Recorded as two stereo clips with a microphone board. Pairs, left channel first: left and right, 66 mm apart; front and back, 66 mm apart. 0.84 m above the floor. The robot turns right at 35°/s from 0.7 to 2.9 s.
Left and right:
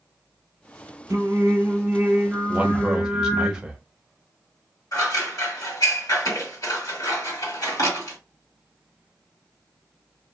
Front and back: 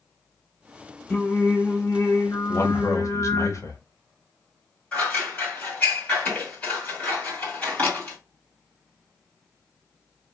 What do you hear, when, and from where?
1.1 s singing: 65° right, 1.5 m; by 3.5 s straight ahead, 1.5 m
2.5 s a man speaking: 25° right, 0.8 m; by 3.8 s 10° right, 0.8 m
4.9 s scissors: 70° left, 2 m